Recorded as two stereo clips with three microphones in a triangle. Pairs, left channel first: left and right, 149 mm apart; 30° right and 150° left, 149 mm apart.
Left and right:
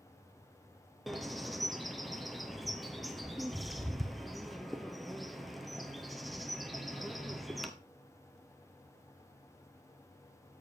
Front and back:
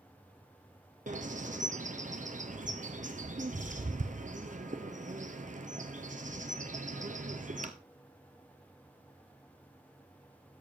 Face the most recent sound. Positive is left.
turn(degrees=180)